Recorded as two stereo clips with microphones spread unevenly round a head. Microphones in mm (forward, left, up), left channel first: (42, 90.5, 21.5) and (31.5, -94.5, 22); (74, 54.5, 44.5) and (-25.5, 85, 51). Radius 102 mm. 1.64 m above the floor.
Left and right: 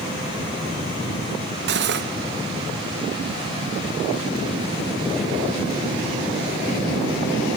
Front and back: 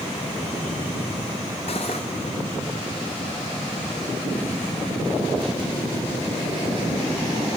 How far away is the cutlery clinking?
About 1.4 m.